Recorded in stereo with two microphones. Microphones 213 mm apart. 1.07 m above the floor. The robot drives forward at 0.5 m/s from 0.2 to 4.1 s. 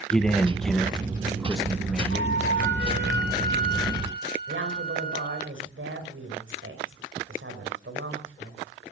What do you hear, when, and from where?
0.1 s a man speaking: 5° left (ahead or behind), 0.8 m; by 2.4 s centre (ahead or behind), 1.8 m
2.1 s a flute: 60° right (ahead or behind), 3 m; by 5.5 s 50° right (ahead or behind), 3.5 m
4.5 s a woman speaking: 70° right (ahead or behind), 4.5 m